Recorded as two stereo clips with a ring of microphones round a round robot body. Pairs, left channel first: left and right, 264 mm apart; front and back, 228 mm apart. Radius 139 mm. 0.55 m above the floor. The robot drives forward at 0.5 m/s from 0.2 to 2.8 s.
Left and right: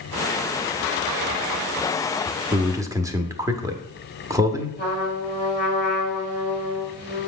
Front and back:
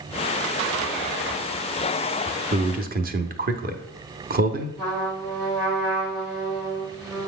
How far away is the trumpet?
About 5 m.